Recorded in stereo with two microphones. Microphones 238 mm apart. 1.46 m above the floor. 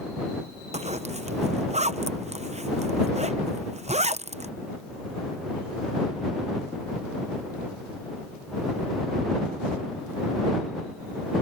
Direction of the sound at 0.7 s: 30° right (ahead or behind).